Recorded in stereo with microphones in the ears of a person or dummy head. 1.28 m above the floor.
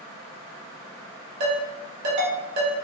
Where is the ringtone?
40° right (ahead or behind), 1.5 m.